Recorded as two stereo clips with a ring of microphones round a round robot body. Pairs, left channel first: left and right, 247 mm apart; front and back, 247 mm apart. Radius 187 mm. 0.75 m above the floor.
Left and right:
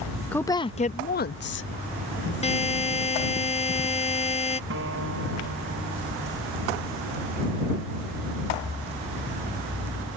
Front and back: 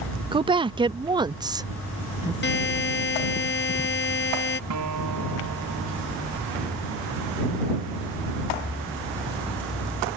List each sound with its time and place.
0.3 s a woman speaking: 165° left; by 2.3 s 105° left
2.4 s a buzzer: 30° left
4.7 s a guitar: 145° right